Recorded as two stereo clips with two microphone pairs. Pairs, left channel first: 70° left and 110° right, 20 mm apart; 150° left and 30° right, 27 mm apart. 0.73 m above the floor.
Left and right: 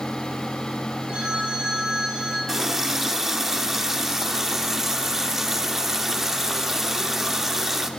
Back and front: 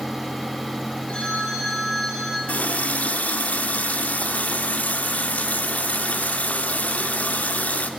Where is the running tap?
165° left, 0.8 m.